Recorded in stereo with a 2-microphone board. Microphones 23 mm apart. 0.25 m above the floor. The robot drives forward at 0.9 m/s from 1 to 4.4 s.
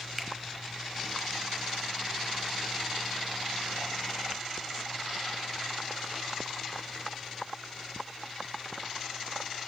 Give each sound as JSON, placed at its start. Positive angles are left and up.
{"t": 0.2, "sound": "a finger snap", "side_deg": 0, "distance_m": 0.8}